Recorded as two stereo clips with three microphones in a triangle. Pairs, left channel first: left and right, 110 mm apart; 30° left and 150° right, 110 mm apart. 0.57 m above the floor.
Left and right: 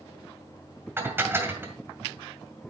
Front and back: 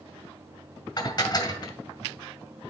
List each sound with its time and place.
1.0 s dishes clattering: 20° right, 2 m